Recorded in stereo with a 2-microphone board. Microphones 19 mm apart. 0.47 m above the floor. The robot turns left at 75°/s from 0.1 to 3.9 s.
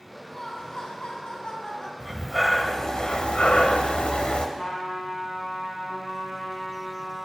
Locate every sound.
0.3 s laughter: 160° left, 2.5 m; by 1.9 s 40° left, 2.5 m
2.0 s breathing: 145° right, 0.7 m; by 4.5 s 75° left, 0.7 m
4.6 s a trumpet: 45° left (ahead or behind), 4 m